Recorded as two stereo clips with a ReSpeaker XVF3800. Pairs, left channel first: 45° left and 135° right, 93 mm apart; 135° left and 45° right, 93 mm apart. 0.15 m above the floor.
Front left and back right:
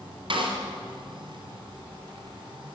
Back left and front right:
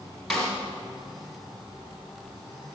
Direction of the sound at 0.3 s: 140° right.